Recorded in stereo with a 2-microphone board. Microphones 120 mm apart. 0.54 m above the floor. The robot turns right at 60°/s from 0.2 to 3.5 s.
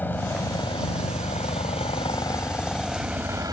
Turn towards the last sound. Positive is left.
turn(degrees=-145)